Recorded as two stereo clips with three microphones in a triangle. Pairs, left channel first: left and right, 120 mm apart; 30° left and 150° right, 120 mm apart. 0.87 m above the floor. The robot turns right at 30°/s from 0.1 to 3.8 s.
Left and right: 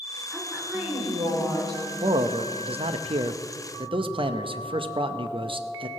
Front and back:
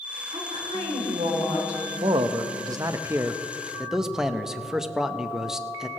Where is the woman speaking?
175° right, 3.5 m; by 1.9 s 125° right, 3.5 m.